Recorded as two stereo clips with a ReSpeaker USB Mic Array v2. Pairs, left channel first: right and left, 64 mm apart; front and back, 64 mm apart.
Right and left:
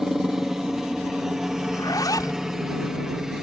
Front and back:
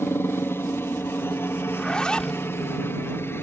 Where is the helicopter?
10° left.